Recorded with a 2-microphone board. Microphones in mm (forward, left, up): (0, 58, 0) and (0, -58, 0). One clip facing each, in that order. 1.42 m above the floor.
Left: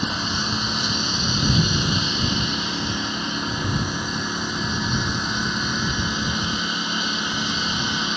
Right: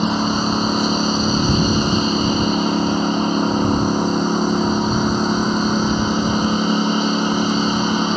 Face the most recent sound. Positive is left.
turn(degrees=-45)  # may be behind; listen again after turning